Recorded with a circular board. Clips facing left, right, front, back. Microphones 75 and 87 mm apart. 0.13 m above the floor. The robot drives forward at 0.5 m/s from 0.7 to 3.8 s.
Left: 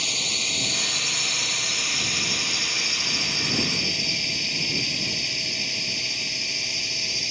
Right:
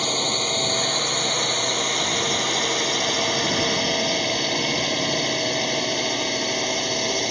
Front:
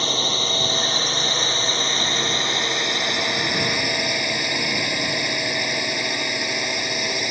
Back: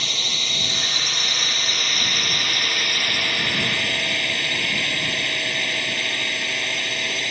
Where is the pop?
No pop in this recording.